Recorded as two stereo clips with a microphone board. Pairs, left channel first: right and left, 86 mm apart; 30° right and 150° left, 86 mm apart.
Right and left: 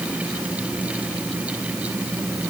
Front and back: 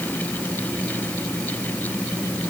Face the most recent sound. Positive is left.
No sound to turn to.